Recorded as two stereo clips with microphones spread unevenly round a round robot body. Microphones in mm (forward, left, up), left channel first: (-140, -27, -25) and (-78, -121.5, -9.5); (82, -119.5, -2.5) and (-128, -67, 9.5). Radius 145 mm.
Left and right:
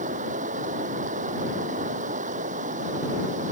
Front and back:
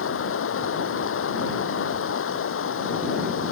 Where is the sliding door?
I don't hear a sliding door.